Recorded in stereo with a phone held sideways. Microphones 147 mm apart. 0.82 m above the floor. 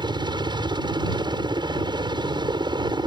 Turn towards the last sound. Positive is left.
turn(degrees=-30)  # may be behind; listen again after turning